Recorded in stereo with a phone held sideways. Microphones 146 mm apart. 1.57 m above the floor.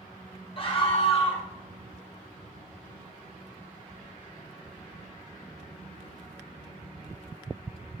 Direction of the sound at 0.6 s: 40° left (ahead or behind).